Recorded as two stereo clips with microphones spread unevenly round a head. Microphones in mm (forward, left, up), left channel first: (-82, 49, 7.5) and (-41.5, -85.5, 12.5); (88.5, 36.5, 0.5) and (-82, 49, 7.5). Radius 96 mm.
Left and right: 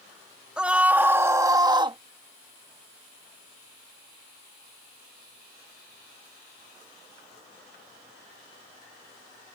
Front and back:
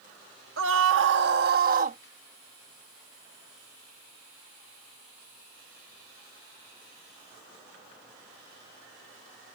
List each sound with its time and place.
0.6 s a scream: 155° right; by 2.0 s 130° right